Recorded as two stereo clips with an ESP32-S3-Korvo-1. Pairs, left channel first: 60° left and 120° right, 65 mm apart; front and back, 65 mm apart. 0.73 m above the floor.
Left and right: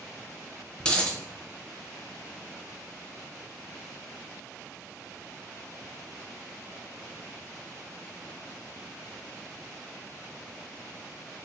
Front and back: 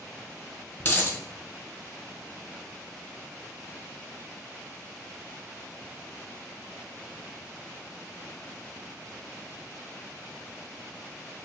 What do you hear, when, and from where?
0.8 s a dropped coin: 5° left, 0.8 m